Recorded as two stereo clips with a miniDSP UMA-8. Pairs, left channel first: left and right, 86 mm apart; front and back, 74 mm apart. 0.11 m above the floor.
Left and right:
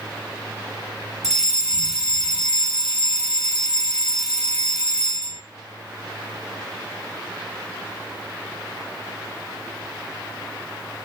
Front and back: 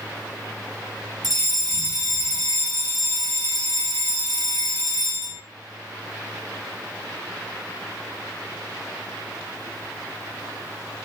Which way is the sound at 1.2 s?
170° right.